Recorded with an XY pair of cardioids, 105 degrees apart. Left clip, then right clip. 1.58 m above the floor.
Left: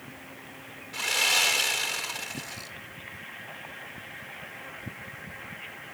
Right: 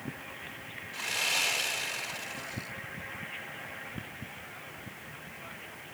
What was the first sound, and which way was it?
Sawing, 50° left.